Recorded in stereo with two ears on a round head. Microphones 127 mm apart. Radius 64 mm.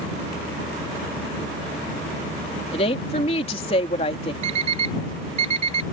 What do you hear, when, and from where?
2.7 s a woman speaking: 40° left (ahead or behind)
4.4 s an alarm clock: 50° right (ahead or behind)